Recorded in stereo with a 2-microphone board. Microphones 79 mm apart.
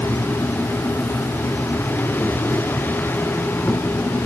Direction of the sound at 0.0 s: 25° left (ahead or behind).